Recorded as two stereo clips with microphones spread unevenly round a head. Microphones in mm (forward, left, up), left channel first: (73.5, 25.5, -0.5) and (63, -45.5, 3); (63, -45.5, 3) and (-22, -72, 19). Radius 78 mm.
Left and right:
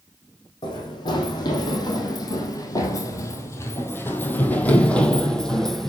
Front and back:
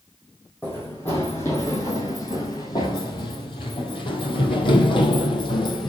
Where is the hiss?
I don't hear a hiss.